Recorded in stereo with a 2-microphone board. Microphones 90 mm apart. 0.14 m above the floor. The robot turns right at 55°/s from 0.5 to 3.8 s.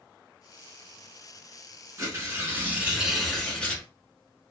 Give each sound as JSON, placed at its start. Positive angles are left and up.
{"t": 2.0, "sound": "tearing paper", "azimuth_deg": -70, "distance_m": 1.0}